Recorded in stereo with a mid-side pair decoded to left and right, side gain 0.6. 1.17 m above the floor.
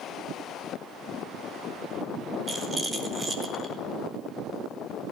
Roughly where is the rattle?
Ahead.